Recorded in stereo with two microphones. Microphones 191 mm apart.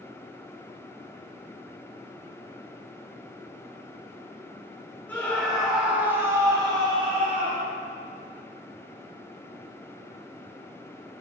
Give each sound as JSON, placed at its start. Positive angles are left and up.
{"t": 5.1, "sound": "a scream", "side_deg": 10, "distance_m": 3.0}